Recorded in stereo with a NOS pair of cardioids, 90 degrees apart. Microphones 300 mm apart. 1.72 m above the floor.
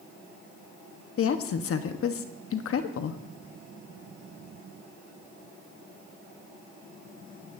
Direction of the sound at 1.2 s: 50° left.